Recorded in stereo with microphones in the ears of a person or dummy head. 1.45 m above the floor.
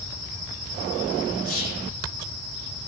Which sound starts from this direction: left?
Whispering, at 1.4 s.